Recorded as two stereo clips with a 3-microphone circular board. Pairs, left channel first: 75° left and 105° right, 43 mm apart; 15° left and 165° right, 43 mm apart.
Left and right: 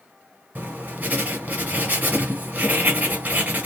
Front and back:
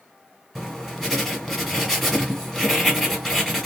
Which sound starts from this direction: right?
Writing, at 0.6 s.